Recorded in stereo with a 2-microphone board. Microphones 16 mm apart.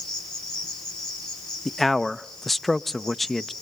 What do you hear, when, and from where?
0.0 s an insect: 60° left (ahead or behind), 8.5 m
1.6 s a man speaking: 10° left (ahead or behind), 0.6 m